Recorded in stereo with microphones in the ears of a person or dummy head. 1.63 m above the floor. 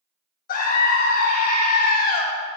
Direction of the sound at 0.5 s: 45° left (ahead or behind).